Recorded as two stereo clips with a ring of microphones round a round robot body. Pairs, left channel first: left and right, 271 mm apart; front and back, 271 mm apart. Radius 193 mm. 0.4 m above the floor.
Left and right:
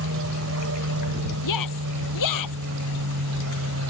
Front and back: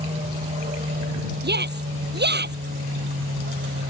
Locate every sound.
0.0 s an aircraft: 110° right; by 3.9 s 125° right
1.4 s a shout: 125° left